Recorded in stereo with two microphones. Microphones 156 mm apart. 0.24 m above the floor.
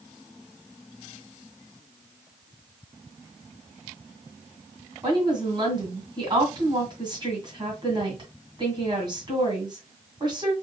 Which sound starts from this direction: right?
A woman speaking, at 5.0 s.